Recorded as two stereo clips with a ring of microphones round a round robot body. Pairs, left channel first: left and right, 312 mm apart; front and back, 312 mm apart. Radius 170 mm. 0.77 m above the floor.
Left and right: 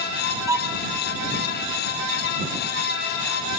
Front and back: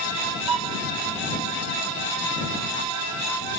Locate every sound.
0.5 s a violin: 170° right